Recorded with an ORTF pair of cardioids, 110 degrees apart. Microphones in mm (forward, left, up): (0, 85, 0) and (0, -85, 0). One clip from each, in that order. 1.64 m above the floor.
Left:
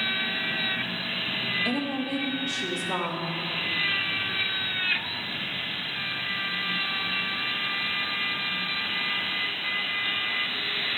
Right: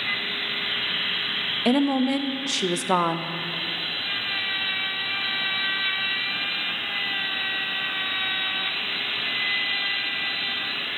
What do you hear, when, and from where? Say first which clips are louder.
1.6 s a woman speaking: right 6 dB; 40° right, 0.5 m